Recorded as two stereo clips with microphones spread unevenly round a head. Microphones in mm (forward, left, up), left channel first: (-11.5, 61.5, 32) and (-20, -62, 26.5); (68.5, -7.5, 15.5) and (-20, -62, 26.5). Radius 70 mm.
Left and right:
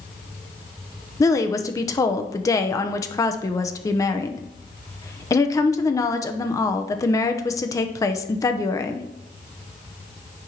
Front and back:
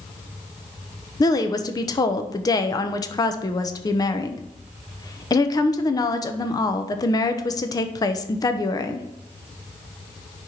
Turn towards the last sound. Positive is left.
turn(degrees=30)